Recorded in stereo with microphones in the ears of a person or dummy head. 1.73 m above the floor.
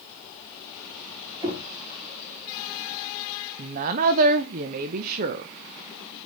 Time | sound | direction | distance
1.4 | knocking | 25° right (ahead or behind) | 3 m
3.6 | a woman speaking | 45° right (ahead or behind) | 0.5 m